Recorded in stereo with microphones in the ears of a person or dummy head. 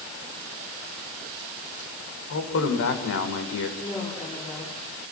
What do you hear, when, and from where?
2.3 s a man speaking: 85° left, 5.5 m
3.8 s a woman speaking: 30° left (ahead or behind), 6.5 m